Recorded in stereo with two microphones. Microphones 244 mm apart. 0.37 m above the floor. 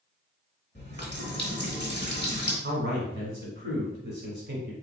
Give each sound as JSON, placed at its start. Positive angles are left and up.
{"t": 0.8, "sound": "a running tap", "side_deg": 45, "distance_m": 1.4}
{"t": 2.6, "sound": "a man speaking", "side_deg": -45, "distance_m": 1.6}